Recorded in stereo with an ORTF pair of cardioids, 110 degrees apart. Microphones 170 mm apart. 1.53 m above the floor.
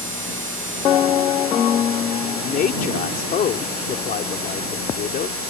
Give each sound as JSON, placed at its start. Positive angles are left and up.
{"t": 2.3, "sound": "a man speaking", "azimuth_deg": 55}